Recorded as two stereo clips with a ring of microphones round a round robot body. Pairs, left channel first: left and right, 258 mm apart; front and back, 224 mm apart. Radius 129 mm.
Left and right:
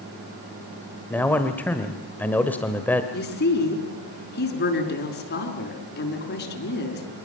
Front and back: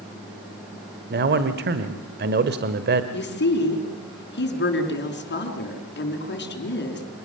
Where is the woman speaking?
40° left, 6 m.